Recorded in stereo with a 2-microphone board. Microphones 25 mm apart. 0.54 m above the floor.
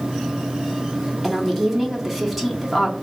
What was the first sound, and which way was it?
A woman speaking, 5° right (ahead or behind).